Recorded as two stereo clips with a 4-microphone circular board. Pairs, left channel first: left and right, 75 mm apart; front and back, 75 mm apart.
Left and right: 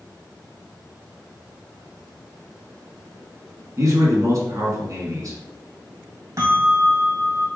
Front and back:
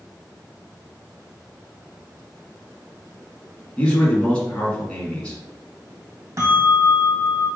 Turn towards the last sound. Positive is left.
turn(degrees=-130)